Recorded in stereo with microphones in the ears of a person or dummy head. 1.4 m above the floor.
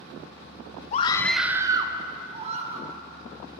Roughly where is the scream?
Left.